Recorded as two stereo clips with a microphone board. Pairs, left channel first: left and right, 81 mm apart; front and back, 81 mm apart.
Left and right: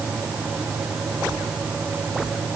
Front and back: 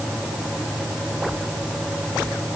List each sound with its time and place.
Only background noise.